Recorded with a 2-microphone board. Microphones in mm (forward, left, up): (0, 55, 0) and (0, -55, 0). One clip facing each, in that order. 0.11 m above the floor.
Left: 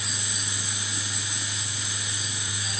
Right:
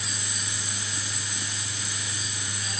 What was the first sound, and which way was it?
Only background noise.